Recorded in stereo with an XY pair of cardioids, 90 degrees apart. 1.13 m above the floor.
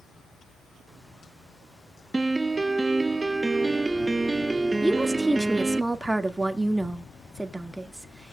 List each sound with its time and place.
2.1 s a piano: 20° right, 0.6 m
4.8 s a woman speaking: 15° right, 1.9 m